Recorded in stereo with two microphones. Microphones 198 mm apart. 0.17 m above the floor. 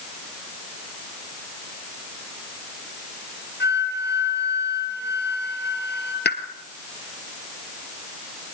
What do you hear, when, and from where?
3.6 s a flute: 60° left (ahead or behind), 3.5 m
6.2 s a pop: 55° left (ahead or behind), 1.5 m